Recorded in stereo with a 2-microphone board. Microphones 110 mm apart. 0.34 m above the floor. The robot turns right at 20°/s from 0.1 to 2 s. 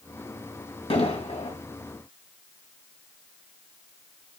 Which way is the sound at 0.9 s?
65° left (ahead or behind).